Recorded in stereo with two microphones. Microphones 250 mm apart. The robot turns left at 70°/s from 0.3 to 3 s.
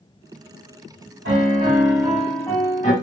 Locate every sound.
1.2 s a piano: 110° right, 1.7 m; by 2.9 s 135° left, 1.7 m